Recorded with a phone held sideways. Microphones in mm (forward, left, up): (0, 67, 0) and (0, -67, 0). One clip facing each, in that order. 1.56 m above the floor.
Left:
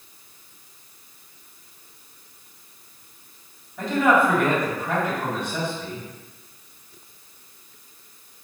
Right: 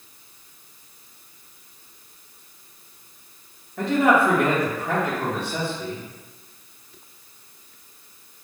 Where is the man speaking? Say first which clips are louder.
Right 1 dB; 65° right (ahead or behind), 1.0 m.